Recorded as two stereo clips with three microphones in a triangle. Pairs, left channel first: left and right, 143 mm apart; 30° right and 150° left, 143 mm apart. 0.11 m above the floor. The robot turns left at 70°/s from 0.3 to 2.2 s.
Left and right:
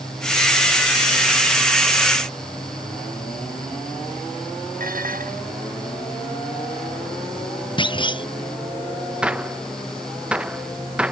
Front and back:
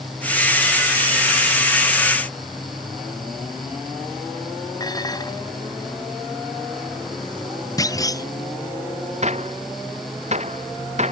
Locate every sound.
4.8 s dishes clattering: 90° right
7.8 s a clunk: 35° left
9.2 s a gunshot: 175° right